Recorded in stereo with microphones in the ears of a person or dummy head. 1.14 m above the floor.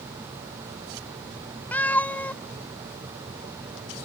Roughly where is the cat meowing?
Centre.